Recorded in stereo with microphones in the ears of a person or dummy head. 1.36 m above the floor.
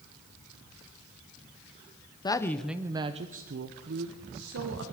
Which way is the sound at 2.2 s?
25° left (ahead or behind).